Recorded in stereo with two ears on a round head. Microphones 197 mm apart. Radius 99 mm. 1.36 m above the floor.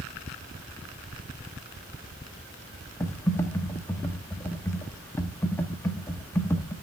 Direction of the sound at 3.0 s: 10° left (ahead or behind).